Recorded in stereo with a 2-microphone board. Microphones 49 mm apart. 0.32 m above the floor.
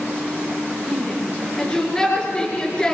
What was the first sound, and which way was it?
A shout, 15° left (ahead or behind).